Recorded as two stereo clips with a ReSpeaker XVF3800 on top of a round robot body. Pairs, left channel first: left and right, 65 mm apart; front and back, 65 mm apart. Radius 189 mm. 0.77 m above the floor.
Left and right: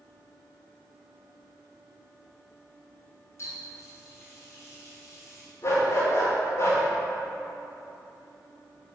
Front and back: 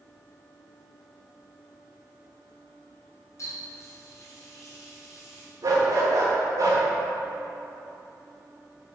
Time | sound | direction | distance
3.4 | a running tap | 45° left | 2 m
5.6 | a dog barking | 140° left | 1.3 m